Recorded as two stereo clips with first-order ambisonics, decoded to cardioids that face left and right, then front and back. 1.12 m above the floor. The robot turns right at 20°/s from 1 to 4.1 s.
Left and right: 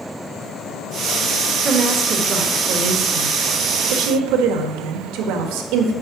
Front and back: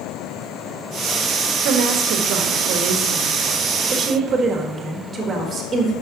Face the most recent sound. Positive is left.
turn(degrees=-110)